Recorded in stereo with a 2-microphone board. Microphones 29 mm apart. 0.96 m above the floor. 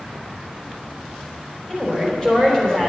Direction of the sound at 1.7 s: 20° left (ahead or behind).